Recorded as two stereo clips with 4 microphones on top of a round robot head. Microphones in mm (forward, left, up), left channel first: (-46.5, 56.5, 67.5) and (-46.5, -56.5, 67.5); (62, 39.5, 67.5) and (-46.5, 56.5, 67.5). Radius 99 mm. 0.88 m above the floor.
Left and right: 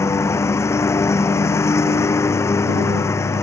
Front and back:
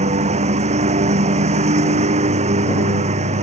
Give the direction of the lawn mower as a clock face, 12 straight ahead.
7 o'clock.